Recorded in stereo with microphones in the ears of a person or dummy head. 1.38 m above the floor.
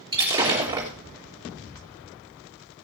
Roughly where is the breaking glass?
Centre.